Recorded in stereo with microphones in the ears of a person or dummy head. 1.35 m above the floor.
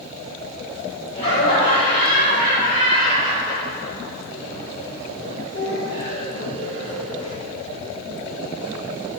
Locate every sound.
1.1 s laughter: 65° left (ahead or behind), 1.3 m